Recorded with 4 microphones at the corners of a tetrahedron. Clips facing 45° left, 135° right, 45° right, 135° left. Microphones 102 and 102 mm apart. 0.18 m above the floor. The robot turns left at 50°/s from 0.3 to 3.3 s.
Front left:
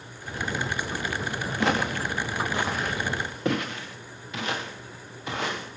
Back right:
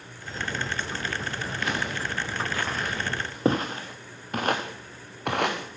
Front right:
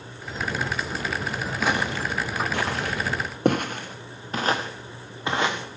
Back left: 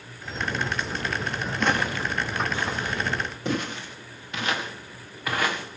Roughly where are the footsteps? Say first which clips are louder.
Front left 6 dB, even; ahead left.